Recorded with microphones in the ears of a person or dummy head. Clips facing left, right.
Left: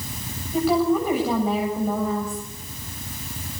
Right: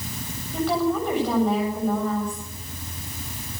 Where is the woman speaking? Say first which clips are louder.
Left 3 dB; 5° left (ahead or behind), 8 m.